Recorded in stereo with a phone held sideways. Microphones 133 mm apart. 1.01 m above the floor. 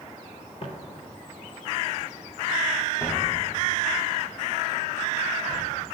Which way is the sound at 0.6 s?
50° left (ahead or behind).